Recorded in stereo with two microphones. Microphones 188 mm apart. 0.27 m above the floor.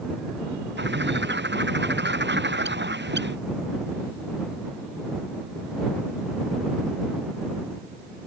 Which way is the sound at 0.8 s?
70° right (ahead or behind).